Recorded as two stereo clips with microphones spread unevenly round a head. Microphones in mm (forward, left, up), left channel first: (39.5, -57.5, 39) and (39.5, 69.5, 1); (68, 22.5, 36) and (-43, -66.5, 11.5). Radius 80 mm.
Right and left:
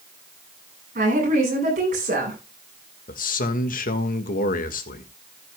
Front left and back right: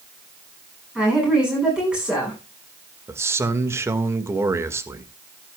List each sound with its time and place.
0.9 s a woman speaking: 135° left, 10 m
3.1 s a man speaking: 70° right, 1.8 m